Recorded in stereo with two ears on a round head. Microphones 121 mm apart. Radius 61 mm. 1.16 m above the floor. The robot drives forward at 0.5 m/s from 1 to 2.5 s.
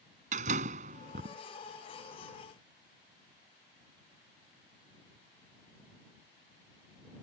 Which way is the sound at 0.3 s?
60° right (ahead or behind).